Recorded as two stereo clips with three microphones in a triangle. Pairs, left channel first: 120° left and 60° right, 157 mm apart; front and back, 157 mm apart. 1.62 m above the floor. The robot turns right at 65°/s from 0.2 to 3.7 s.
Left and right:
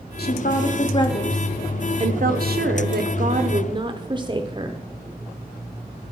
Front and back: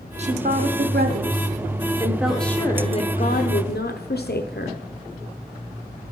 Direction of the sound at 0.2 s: 130° left.